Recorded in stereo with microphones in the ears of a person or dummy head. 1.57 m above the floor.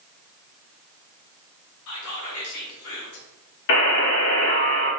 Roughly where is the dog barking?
I don't hear a dog barking.